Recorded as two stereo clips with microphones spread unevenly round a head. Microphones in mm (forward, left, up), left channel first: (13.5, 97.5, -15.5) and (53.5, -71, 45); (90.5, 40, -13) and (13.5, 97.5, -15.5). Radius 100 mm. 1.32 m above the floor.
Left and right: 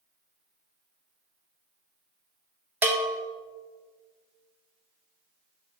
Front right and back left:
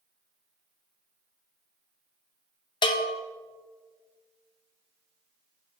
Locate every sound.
2.8 s a bell: 10° right, 0.8 m